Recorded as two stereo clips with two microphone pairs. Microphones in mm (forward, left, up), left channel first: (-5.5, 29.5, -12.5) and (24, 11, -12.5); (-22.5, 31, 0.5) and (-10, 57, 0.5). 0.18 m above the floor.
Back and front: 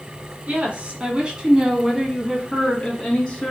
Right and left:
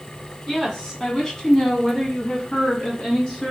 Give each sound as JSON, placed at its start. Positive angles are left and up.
{"t": 0.5, "sound": "a woman speaking", "azimuth_deg": -40, "distance_m": 1.5}